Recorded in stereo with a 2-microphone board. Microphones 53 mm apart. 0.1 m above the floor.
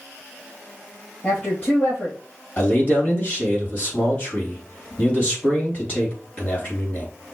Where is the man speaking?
25° left (ahead or behind), 3 m.